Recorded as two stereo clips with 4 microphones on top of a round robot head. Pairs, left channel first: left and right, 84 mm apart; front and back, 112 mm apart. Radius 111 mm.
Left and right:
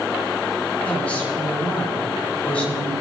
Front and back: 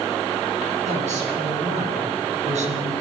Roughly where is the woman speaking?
Behind.